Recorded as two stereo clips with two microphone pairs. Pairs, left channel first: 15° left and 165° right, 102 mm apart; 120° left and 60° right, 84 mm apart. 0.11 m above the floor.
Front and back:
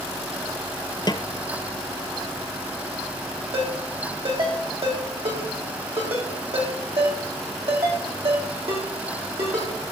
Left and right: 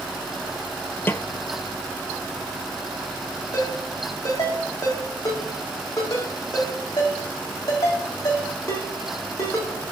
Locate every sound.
1.1 s a snare drum: 55° left, 0.6 m
3.5 s a ringtone: 165° left, 4 m